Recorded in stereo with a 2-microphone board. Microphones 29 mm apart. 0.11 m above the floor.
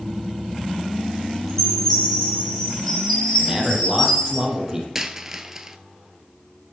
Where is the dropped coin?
15° right (ahead or behind), 0.7 m.